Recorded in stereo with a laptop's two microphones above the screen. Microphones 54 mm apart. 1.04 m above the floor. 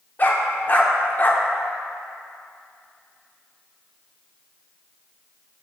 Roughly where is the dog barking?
Left.